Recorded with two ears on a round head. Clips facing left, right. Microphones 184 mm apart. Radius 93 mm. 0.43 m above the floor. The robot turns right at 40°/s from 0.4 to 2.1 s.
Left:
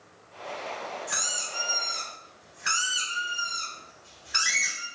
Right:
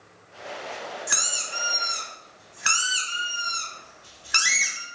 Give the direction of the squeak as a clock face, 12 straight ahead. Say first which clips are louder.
Right 1 dB; 4 o'clock.